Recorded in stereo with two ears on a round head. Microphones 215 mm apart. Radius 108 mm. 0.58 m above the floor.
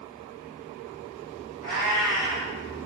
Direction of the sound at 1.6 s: 25° right (ahead or behind).